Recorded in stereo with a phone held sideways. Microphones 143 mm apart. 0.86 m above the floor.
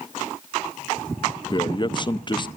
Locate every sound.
1.5 s a man speaking: 35° left (ahead or behind), 0.5 m